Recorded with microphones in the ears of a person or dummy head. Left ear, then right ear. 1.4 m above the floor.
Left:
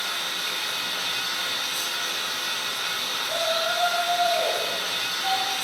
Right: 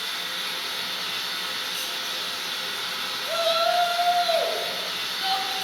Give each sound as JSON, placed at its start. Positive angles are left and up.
{"t": 0.0, "sound": "running water", "side_deg": 20, "distance_m": 1.5}
{"t": 3.3, "sound": "a shout", "side_deg": -35, "distance_m": 1.3}